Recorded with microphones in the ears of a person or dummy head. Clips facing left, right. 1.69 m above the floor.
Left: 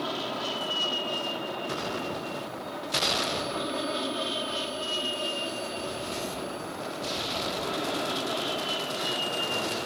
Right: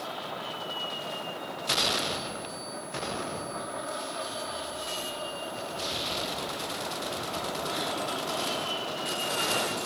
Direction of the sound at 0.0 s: 60° left (ahead or behind).